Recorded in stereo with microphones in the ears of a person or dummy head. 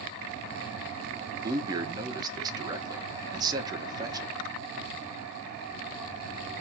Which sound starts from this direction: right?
A man speaking, at 1.4 s.